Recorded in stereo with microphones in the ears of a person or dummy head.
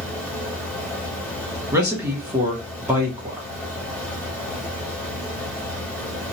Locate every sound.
0.0 s a fan: centre (ahead or behind), 1.7 m
1.7 s a man speaking: 15° right (ahead or behind), 0.7 m